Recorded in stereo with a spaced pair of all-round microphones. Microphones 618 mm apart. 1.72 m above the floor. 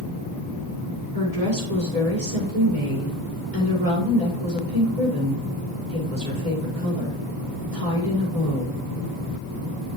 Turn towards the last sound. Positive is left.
turn(degrees=-65)  # may be behind; listen again after turning